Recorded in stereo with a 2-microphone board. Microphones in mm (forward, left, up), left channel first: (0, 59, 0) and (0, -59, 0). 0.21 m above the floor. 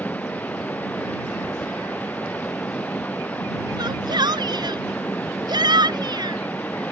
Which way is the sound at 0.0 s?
15° left (ahead or behind).